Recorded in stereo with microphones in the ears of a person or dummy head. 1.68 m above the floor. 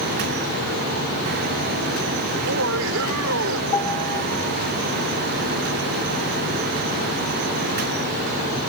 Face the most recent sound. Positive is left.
turn(degrees=20)  # may be behind; listen again after turning